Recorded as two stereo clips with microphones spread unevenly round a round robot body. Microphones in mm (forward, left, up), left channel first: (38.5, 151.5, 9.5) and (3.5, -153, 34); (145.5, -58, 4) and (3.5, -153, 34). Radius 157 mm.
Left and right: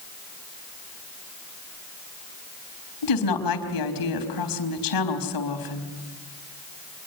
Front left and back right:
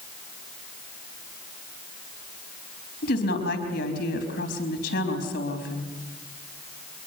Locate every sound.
3.0 s a woman speaking: 80° left, 4 m